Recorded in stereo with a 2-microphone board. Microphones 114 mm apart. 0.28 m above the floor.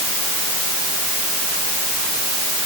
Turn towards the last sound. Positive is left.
No sound to turn to.